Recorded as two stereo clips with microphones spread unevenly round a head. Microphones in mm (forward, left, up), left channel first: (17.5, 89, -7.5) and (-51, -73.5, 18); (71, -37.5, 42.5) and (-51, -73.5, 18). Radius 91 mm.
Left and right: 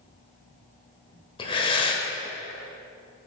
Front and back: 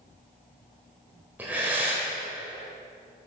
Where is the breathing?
105° left, 1.1 m.